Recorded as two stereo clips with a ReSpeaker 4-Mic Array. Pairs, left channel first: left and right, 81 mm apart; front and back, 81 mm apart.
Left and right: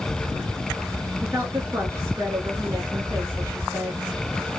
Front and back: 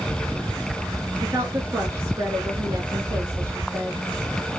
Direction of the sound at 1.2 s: 140° right.